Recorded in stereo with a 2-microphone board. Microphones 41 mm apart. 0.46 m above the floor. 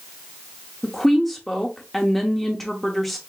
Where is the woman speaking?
5° left (ahead or behind), 0.7 m.